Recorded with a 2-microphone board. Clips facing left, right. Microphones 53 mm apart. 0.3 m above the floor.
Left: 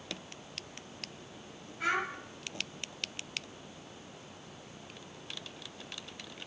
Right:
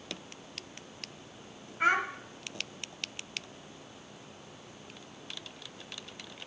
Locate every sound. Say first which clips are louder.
1.8 s a child speaking: right 5 dB; 40° right (ahead or behind), 1.3 m